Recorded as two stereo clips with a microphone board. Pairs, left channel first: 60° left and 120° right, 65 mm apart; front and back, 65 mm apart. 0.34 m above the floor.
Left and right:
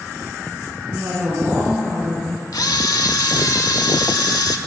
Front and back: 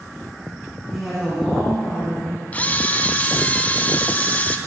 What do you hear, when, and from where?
0.9 s a woman speaking: 75° right, 4 m
2.5 s a camera shutter: 65° left, 0.7 m